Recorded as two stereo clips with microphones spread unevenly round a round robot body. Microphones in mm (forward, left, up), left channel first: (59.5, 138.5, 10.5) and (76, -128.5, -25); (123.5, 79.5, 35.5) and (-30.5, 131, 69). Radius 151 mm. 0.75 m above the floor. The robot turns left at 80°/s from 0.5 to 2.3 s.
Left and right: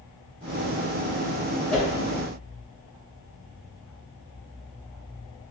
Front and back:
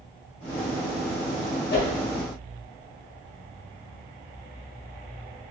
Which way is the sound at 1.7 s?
10° left.